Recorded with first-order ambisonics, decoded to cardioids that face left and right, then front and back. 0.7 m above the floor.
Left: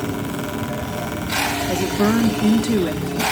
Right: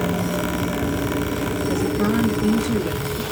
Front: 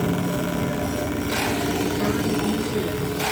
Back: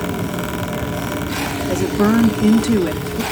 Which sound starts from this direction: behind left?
A woman speaking, at 1.7 s.